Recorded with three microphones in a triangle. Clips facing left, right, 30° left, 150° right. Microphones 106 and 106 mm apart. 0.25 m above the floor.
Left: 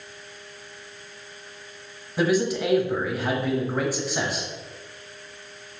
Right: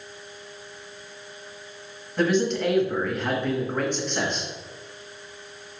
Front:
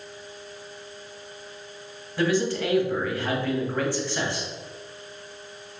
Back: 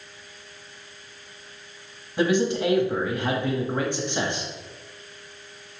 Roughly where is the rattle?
I don't hear a rattle.